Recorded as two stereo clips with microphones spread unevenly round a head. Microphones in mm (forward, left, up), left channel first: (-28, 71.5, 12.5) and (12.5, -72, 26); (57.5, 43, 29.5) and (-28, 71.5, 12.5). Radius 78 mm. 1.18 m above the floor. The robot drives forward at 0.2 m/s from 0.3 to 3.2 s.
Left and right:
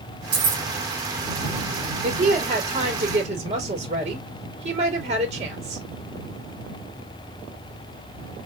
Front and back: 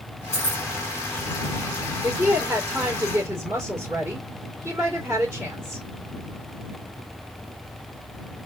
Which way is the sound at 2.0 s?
120° right.